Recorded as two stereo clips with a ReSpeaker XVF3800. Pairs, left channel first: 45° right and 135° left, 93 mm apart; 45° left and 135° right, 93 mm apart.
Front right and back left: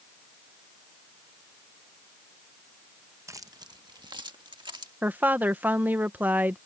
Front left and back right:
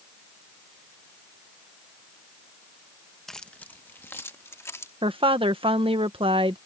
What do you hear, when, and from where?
3.3 s keys jangling: 130° left; by 4.9 s 105° left
5.0 s a woman speaking: 155° right